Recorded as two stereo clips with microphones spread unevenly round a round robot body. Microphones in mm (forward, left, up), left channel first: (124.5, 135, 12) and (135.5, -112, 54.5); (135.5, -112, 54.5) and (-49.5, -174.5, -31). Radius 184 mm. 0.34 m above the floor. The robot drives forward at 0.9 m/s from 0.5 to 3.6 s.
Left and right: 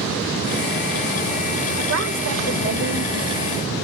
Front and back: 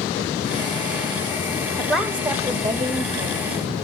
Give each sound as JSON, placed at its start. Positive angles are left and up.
{"t": 1.8, "sound": "a woman speaking", "azimuth_deg": -85, "distance_m": 1.7}